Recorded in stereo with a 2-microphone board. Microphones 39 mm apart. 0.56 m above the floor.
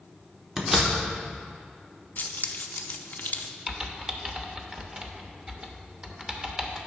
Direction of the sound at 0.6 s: 15° right (ahead or behind).